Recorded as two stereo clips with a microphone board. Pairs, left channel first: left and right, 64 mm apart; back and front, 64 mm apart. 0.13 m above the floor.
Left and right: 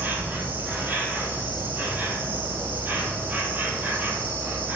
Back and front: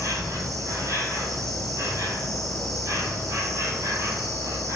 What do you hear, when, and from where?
0.0 s an insect: 30° right, 0.7 m